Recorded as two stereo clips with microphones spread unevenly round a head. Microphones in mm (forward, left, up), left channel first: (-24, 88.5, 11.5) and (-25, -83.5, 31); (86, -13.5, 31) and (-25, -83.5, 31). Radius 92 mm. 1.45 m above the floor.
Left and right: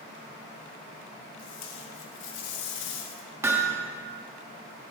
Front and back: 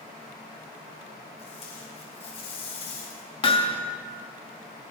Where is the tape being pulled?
90° left, 3.5 m.